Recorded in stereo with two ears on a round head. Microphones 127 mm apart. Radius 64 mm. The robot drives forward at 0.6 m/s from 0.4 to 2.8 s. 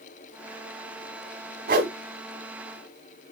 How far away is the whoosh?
About 1.0 m.